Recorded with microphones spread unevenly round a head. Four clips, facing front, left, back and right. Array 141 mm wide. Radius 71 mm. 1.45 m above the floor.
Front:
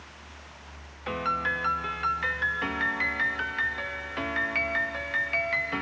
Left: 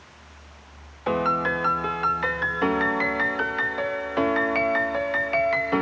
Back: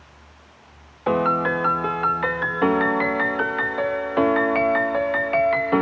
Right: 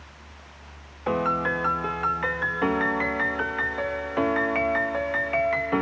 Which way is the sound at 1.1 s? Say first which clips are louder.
Left 1 dB, back 10 dB; 175° left.